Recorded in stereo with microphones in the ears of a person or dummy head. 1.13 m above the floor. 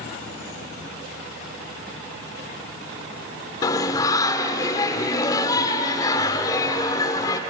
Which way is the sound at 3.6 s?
20° left (ahead or behind).